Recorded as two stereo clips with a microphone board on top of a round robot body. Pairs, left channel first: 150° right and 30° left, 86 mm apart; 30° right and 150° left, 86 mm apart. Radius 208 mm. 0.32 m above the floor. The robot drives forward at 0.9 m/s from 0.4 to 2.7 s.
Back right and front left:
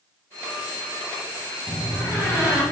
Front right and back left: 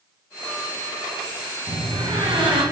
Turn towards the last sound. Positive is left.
turn(degrees=155)